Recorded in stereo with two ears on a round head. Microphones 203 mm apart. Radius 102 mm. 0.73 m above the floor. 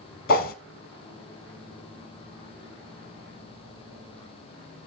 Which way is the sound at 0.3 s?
40° left (ahead or behind).